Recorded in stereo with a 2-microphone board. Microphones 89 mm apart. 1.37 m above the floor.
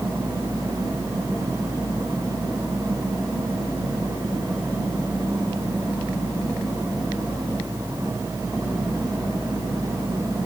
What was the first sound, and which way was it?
Only background noise.